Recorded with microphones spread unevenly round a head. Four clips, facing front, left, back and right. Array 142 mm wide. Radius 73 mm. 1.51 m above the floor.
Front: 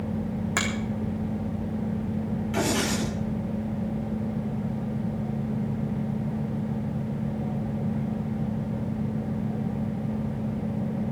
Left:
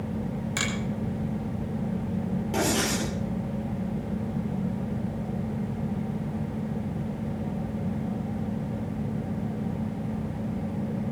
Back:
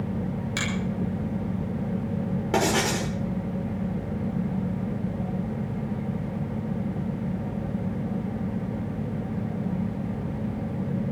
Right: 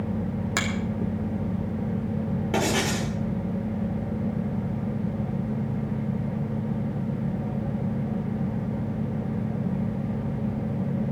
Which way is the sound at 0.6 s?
45° right.